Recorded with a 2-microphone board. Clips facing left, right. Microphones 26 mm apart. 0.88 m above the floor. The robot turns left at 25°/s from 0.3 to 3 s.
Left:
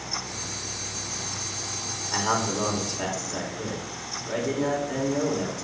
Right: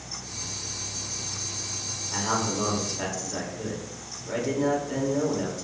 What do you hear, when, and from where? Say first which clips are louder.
2.1 s a man speaking: left 2 dB; 25° left (ahead or behind), 3.5 m; by 5.7 s 5° left (ahead or behind), 3.5 m